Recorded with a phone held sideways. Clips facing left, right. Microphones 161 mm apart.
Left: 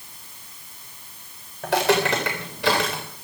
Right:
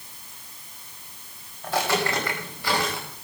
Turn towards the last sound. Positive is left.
turn(degrees=80)